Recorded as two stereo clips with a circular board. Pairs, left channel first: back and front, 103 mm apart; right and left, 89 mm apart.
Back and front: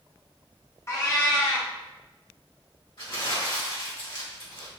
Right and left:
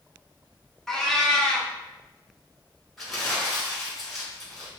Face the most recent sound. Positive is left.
turn(degrees=180)